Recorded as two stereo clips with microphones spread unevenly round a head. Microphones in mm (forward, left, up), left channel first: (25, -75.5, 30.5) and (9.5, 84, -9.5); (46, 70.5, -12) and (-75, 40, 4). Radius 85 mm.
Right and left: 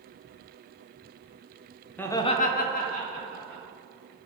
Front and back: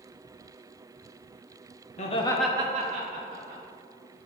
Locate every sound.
2.0 s laughter: 5° left, 0.9 m; by 3.6 s 145° right, 2.0 m